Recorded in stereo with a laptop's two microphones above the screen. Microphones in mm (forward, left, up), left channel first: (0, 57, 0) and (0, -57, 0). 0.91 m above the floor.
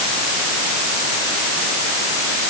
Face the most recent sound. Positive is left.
No sound to turn to.